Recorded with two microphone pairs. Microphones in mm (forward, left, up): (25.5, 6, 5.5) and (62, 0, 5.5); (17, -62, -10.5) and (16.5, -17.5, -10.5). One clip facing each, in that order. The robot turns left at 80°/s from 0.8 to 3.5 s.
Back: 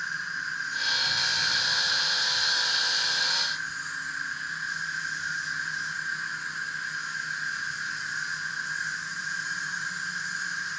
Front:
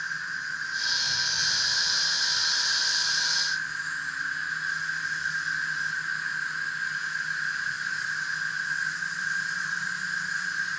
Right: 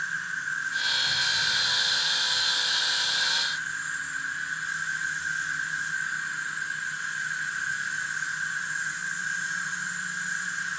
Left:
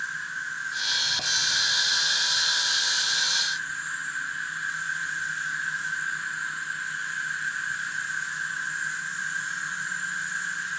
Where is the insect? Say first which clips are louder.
Even, right 1 dB; 110° right, 1.7 m; by 10.8 s 35° left, 1.7 m.